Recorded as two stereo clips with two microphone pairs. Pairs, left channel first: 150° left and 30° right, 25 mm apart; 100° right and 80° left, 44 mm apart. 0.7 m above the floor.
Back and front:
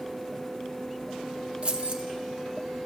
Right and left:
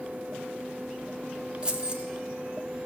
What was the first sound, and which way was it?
Keys jangling, 15° left.